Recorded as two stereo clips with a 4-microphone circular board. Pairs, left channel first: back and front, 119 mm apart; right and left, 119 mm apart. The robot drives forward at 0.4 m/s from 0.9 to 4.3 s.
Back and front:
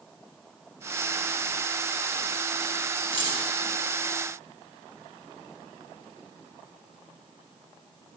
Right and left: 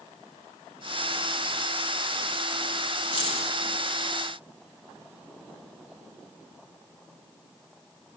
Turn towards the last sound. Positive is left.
turn(degrees=-140)